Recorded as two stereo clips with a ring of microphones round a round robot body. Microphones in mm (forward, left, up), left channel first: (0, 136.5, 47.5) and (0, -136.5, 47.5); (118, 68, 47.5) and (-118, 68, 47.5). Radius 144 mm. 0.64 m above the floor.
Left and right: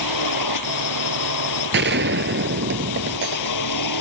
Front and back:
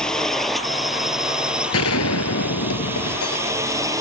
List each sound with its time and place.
0.0 s a drone: 90° left; by 4.0 s 105° left
1.7 s a gunshot: 40° right